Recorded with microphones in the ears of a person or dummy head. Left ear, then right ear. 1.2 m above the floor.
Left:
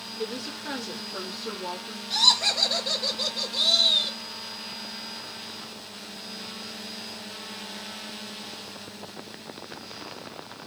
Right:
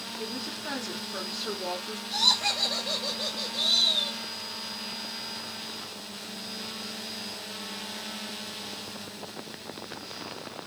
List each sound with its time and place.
0.2 s a woman speaking: 30° left (ahead or behind), 1.0 m; by 2.0 s 30° right (ahead or behind), 0.8 m
2.1 s laughter: 20° left (ahead or behind), 0.6 m